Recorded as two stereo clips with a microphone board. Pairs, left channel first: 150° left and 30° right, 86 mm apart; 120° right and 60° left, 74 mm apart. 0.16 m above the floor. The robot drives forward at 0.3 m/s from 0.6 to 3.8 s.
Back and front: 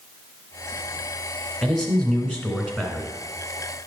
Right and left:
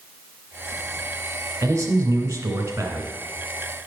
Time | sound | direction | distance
1.6 | a man speaking | 65° left | 1.9 m